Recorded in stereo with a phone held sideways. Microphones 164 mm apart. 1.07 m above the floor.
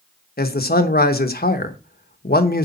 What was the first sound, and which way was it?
A man speaking, 70° left (ahead or behind).